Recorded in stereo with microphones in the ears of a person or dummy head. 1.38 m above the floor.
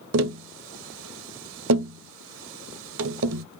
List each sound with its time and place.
0.1 s tapping: 70° right (ahead or behind), 0.6 m